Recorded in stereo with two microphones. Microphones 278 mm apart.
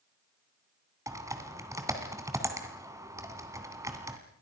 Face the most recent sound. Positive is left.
turn(degrees=-10)  # may be behind; listen again after turning